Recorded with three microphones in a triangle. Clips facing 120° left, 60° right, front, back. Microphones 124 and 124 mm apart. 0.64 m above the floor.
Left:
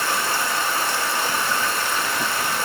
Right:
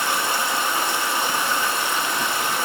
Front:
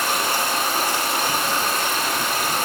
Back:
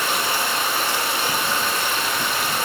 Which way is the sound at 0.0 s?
Straight ahead.